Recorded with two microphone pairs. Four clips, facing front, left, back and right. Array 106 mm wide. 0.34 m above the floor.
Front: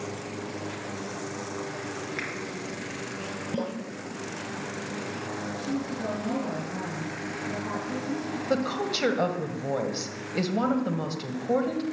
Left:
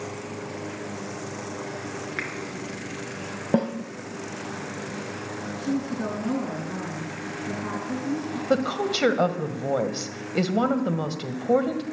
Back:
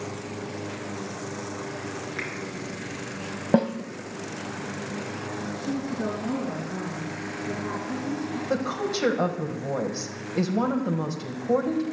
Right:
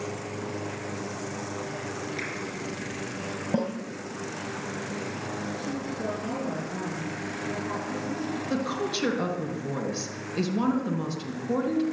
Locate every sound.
2.2 s a finger snap: 100° left, 4 m
3.5 s a snare drum: 150° left, 2.5 m
5.6 s a woman speaking: 95° left, 4.5 m
8.5 s a woman speaking: 85° left, 1.7 m